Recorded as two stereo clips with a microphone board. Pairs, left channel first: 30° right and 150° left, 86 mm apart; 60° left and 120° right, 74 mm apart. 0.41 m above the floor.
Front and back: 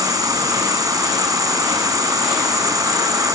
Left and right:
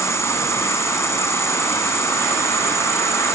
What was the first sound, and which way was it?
An insect, 110° left.